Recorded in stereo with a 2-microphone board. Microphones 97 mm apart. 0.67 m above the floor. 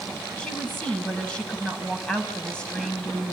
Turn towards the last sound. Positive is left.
turn(degrees=10)  # may be behind; listen again after turning